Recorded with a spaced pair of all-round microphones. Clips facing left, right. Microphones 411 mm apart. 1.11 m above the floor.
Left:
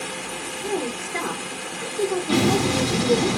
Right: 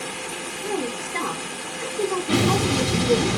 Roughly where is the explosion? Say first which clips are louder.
Left 1 dB; right.